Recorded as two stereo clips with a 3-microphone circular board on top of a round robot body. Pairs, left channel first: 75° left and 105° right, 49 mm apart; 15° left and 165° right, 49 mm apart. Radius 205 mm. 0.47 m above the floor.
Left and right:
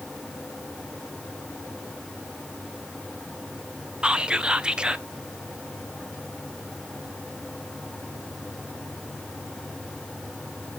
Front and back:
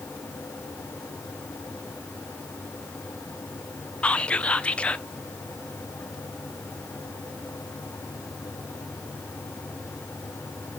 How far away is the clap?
I don't hear a clap.